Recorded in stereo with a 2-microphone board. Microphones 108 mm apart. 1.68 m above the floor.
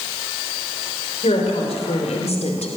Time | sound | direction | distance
1.2 | a woman speaking | 80° left | 5.5 m